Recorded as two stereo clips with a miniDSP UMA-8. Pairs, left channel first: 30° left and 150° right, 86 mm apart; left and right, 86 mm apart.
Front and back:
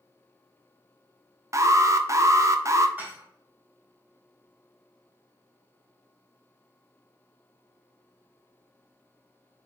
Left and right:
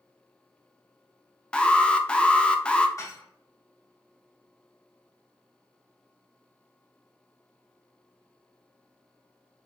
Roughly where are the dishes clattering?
Behind left.